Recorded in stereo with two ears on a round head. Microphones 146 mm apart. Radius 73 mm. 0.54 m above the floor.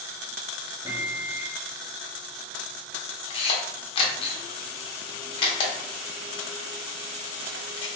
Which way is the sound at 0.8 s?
20° right (ahead or behind).